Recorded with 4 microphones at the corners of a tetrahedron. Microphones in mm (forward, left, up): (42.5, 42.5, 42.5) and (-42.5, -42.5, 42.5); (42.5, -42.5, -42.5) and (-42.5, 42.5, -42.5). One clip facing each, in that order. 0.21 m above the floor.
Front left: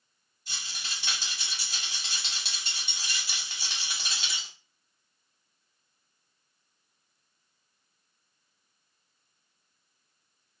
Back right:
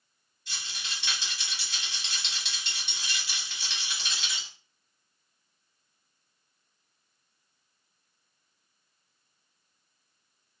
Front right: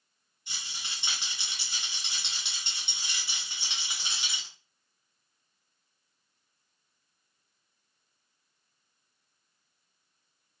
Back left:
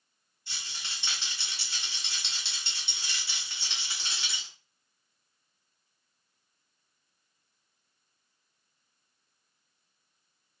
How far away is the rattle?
About 1.9 m.